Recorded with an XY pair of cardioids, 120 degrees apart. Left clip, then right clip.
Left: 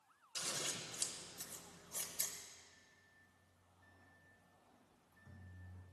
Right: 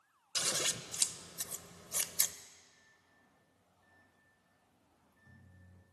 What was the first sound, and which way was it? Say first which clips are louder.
Scissors: right 8 dB; 55° right.